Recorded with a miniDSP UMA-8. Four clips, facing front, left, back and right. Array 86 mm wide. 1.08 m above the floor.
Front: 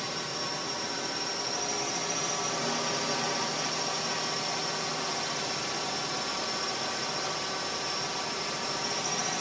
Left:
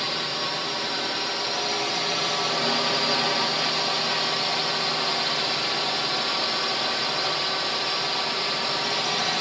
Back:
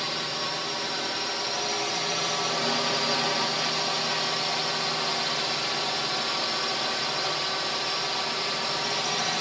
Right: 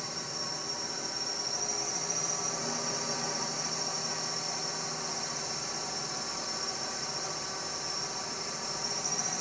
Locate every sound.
0.0 s a drone: 115° left